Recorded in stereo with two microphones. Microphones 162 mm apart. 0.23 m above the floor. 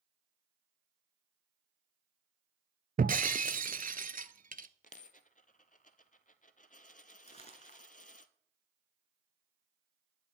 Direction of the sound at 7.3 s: 45° left (ahead or behind).